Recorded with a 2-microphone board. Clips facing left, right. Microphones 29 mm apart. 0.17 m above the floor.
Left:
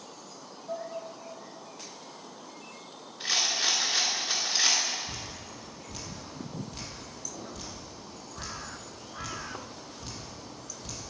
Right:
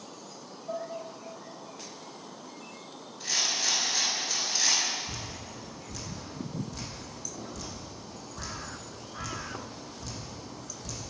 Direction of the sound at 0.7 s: 10° right (ahead or behind).